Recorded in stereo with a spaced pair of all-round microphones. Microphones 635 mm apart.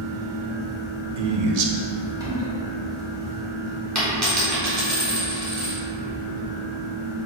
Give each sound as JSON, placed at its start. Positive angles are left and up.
{"t": 0.0, "sound": "a fan", "side_deg": -5, "distance_m": 1.0}
{"t": 1.2, "sound": "a man speaking", "side_deg": -70, "distance_m": 0.6}
{"t": 4.0, "sound": "a dropped coin", "side_deg": -25, "distance_m": 1.3}